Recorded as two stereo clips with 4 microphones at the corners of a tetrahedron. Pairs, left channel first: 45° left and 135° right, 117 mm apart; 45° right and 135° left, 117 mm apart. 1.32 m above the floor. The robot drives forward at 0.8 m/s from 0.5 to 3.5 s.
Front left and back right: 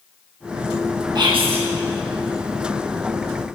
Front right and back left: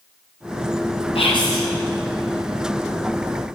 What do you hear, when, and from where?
1.1 s whispering: 80° right, 0.8 m; by 1.6 s 110° right, 0.8 m